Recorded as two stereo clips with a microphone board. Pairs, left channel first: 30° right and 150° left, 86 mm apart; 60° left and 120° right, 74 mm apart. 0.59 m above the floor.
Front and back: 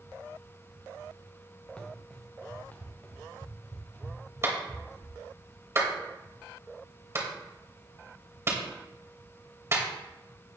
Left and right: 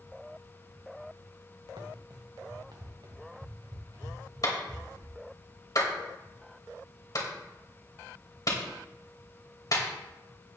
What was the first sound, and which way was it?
Running footsteps, 105° right.